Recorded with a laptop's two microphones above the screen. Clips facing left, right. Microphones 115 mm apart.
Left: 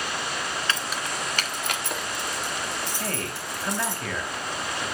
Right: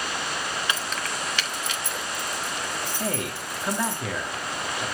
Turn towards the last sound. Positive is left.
turn(degrees=-15)  # may be behind; listen again after turning